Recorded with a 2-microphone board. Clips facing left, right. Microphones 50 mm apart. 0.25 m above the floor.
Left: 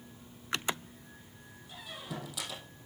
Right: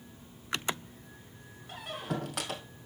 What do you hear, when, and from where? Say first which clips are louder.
1.7 s a squeak: right 6 dB; 55° right (ahead or behind), 2.0 m